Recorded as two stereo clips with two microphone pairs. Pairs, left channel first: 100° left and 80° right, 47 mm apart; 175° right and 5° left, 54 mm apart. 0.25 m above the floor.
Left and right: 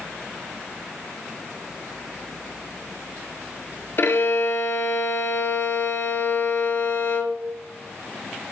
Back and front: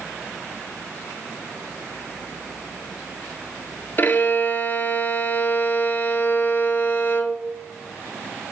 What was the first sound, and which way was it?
A violin, 135° left.